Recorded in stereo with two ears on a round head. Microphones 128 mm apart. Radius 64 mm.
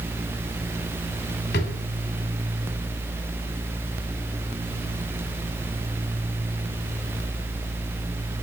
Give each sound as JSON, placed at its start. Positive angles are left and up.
{"t": 1.5, "sound": "a drawer", "side_deg": 80, "distance_m": 3.5}